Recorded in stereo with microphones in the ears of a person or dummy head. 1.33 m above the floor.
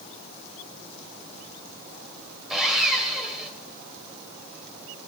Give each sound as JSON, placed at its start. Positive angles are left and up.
{"t": 2.5, "sound": "sawing", "side_deg": -5, "distance_m": 3.0}